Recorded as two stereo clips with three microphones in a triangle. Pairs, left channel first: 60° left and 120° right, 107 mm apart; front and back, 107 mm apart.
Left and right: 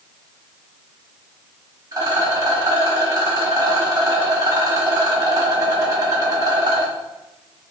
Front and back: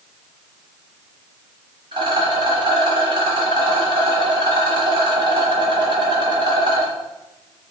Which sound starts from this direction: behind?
A rattle, at 1.9 s.